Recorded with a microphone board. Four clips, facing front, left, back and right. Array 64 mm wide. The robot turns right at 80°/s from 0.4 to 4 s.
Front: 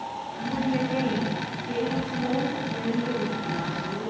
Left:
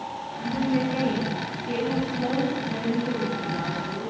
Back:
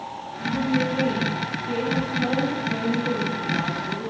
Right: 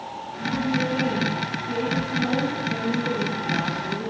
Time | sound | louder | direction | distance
0.4 | a woman speaking | even, back 3 dB | 25° right | 5.5 m